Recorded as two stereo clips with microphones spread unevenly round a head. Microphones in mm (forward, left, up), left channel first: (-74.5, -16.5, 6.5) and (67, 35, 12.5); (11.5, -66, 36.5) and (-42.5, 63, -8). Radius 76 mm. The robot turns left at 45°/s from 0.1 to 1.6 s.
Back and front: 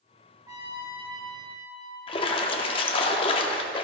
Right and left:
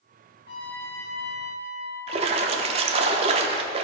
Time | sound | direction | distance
0.5 | a trumpet | 50° right | 1.9 m
2.1 | a splash | 165° left | 0.5 m